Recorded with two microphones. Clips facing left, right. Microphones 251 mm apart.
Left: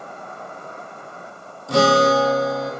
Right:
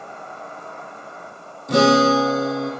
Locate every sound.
0.0 s an insect: 50° left (ahead or behind), 1.3 m
1.7 s a guitar: 20° right (ahead or behind), 1.5 m